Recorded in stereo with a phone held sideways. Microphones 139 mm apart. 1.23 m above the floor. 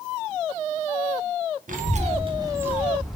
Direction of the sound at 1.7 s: 70° right (ahead or behind).